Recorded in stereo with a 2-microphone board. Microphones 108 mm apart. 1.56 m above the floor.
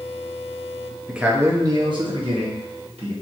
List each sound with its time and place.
1.1 s a man speaking: 5° right (ahead or behind), 0.6 m; by 3.1 s 70° right (ahead or behind), 1.2 m